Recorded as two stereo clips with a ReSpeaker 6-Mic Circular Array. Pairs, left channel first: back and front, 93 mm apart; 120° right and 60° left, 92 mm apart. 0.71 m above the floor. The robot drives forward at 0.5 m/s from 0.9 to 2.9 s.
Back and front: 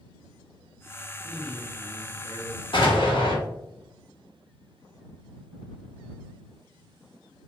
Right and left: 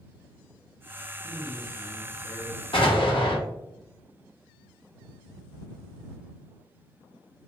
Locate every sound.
1.2 s a man speaking: 115° right, 1.3 m; by 2.6 s 145° right, 1.6 m
2.7 s an explosion: 150° right, 1.1 m